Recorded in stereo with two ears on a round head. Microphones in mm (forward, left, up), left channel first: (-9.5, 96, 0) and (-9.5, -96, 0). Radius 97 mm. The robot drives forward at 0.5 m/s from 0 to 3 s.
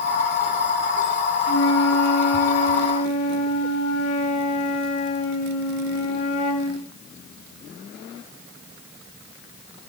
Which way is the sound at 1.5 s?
85° left.